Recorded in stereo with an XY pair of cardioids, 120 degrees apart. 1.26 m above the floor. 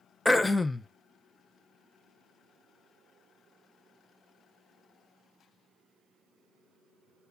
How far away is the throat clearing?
About 0.6 m.